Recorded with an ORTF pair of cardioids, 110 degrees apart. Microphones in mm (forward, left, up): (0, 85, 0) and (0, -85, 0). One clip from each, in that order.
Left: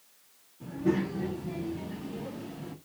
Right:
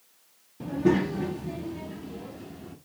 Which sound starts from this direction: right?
A child speaking, at 0.6 s.